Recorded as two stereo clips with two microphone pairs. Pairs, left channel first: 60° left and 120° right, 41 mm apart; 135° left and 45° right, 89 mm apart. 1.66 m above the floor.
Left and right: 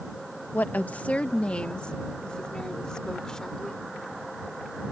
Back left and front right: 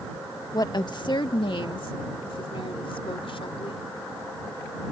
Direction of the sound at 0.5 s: 95° left.